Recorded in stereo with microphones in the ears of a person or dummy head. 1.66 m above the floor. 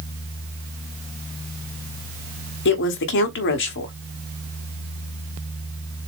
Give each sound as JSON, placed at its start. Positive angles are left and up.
{"t": 2.6, "sound": "a woman speaking", "side_deg": 55, "distance_m": 1.0}